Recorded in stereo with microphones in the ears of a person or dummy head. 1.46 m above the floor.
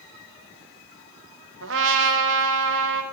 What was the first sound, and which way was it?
A trumpet, 75° right (ahead or behind).